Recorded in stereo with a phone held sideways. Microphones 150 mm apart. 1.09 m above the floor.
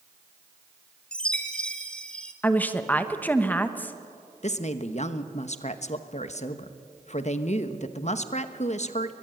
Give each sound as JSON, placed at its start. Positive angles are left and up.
{"t": 1.1, "sound": "a chime", "side_deg": 5, "distance_m": 1.8}
{"t": 2.4, "sound": "a woman speaking", "side_deg": 10, "distance_m": 1.2}
{"t": 4.4, "sound": "a woman speaking", "side_deg": 50, "distance_m": 1.1}